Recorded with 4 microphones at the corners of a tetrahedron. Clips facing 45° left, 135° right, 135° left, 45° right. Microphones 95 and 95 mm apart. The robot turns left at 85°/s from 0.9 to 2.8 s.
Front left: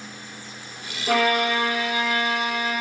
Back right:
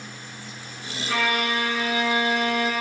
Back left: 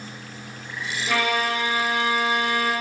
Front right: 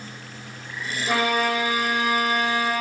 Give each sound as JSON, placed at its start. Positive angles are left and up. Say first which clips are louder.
{"t": 1.1, "sound": "a violin", "louder": "front left 4 dB, front right 1 dB", "azimuth_deg": 15, "distance_m": 1.3}